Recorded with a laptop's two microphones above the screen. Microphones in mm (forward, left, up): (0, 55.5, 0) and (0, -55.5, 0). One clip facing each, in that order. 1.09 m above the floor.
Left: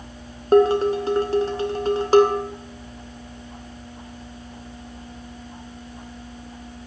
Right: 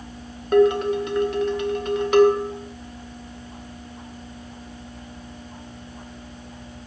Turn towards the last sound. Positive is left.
turn(degrees=30)  # may be behind; listen again after turning